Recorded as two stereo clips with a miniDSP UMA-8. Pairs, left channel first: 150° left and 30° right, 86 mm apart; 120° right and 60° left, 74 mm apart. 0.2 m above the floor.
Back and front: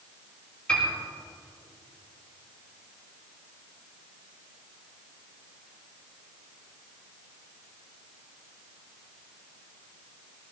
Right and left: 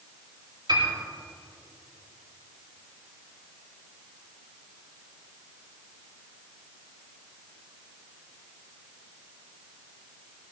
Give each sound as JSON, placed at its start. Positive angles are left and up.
{"t": 0.7, "sound": "a piano", "azimuth_deg": 75, "distance_m": 6.0}